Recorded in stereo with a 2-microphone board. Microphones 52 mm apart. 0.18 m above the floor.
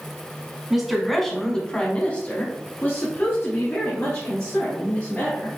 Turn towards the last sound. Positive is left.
turn(degrees=50)  # may be behind; listen again after turning